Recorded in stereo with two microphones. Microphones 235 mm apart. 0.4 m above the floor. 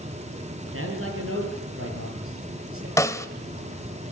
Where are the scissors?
I don't hear scissors.